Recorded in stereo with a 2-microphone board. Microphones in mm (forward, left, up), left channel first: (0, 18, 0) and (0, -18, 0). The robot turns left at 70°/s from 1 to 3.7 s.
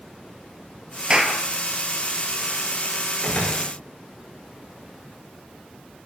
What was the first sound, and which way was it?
A clap, 30° right (ahead or behind).